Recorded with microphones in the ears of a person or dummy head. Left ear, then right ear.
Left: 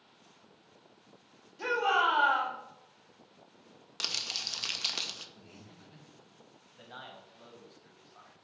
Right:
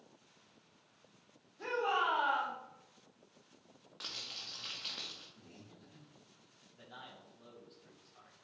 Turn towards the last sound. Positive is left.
turn(degrees=20)  # may be behind; listen again after turning